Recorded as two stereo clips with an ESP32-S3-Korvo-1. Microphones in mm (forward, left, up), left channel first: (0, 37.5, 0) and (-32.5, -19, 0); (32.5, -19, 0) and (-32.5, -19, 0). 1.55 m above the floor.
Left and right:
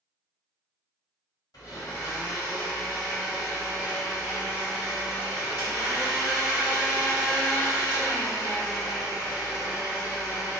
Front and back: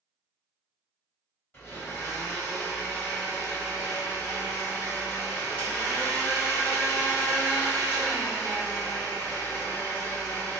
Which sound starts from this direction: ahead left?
A blender, at 1.5 s.